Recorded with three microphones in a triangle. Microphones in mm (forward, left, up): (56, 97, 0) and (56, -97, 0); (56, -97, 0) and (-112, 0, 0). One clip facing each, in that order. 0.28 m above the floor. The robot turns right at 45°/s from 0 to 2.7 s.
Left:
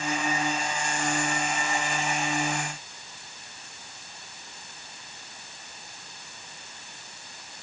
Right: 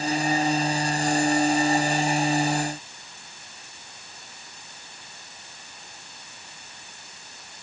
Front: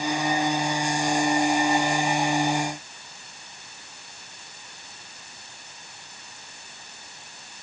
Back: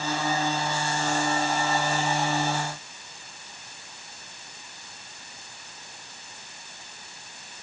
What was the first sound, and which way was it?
Only background noise.